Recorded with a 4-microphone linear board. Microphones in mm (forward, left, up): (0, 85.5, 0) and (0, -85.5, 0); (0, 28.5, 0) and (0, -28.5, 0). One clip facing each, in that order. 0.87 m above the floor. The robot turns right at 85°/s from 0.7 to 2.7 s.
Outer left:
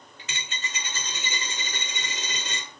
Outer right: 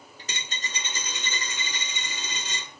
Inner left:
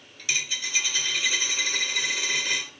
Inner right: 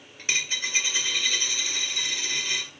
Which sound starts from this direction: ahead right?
A dropped coin, at 0.2 s.